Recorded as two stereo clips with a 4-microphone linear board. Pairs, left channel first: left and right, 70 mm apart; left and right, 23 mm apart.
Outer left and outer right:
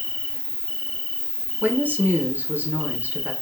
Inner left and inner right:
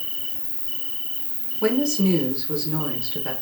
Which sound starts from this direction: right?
A woman speaking, at 1.6 s.